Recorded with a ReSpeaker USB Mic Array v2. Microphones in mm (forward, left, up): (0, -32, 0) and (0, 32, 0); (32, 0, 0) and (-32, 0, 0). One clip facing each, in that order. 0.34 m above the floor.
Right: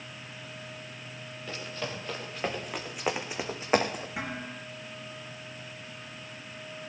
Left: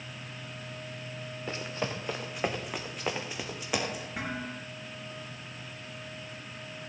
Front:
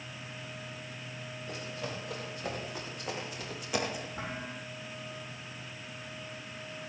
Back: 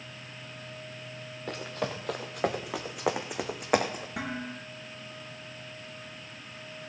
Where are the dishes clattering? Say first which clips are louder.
Even, back 4 dB; 175° right, 4 m.